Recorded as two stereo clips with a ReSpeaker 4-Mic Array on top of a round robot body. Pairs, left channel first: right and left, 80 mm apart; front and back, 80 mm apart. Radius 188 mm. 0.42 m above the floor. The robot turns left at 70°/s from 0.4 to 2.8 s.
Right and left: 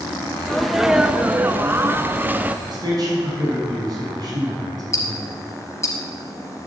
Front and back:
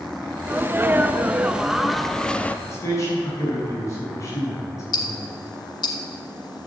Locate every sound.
0.5 s a sneeze: 170° right, 0.8 m; by 2.5 s 45° left, 0.8 m
2.6 s a man speaking: 60° left, 6 m; by 5.2 s 50° left, 6 m
4.9 s ticking: 35° right, 1.3 m